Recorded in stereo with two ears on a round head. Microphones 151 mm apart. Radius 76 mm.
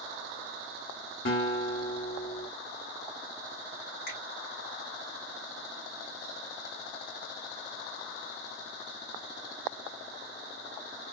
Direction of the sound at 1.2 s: 55° left (ahead or behind).